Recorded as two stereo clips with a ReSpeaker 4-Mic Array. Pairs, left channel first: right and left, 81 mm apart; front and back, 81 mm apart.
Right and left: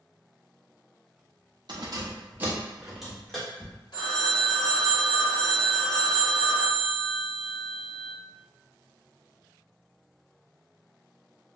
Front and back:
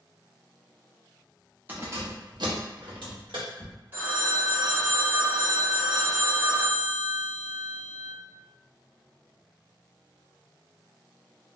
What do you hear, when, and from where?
1.7 s keys jangling: 115° left, 0.5 m; by 3.7 s 170° right, 1.1 m
3.9 s a phone ringing: 115° right, 0.7 m